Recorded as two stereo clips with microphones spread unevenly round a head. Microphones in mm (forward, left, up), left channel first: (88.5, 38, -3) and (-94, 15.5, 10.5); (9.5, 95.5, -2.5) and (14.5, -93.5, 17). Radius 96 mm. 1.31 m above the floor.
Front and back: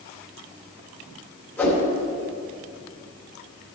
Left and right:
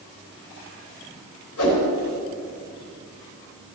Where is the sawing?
I don't hear sawing.